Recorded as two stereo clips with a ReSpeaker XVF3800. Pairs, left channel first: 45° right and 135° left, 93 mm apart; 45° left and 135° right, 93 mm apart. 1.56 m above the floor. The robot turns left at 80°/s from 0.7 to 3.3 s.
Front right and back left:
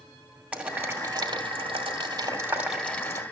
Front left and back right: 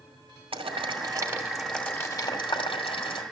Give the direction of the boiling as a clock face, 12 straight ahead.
5 o'clock.